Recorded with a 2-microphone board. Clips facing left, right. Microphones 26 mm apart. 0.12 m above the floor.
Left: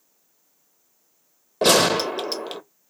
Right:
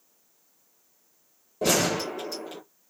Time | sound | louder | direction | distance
1.6 | a gunshot | left 7 dB | 65° left (ahead or behind) | 0.7 m